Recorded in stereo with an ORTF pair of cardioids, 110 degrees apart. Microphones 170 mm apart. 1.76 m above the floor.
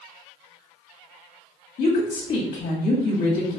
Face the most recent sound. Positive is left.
turn(degrees=60)